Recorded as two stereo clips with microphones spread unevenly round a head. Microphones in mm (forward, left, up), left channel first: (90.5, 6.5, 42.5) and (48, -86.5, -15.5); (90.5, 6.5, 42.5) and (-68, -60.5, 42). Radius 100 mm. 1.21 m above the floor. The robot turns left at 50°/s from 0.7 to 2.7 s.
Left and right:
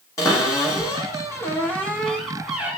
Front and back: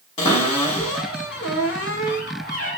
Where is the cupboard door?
80° left, 1.1 m; by 2.8 s 20° right, 1.1 m.